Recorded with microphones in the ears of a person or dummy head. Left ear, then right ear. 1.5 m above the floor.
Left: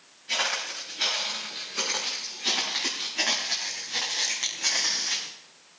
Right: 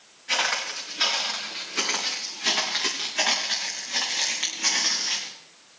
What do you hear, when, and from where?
0.3 s footsteps: 30° right (ahead or behind), 7.5 m; by 5.3 s 5° left (ahead or behind), 4 m